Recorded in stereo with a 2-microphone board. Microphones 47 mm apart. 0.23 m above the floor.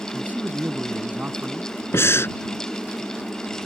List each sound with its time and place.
0.1 s a man speaking: 40° right (ahead or behind)
1.9 s breathing: 65° left (ahead or behind)